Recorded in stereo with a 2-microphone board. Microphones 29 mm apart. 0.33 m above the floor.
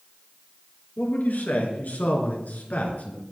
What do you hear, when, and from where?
1.0 s a man speaking: 80° left, 5 m; by 3.2 s 60° left (ahead or behind), 4.5 m